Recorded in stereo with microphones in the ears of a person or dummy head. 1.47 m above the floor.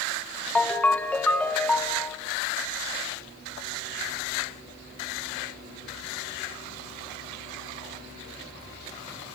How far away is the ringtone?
About 1.0 m.